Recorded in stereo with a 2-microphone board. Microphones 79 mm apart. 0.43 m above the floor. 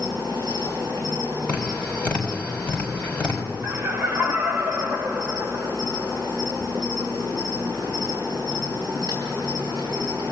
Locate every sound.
0.0 s an insect: 50° right (ahead or behind), 9.5 m
1.5 s tapping: 20° left (ahead or behind), 3 m
3.6 s laughter: 30° right (ahead or behind), 1.4 m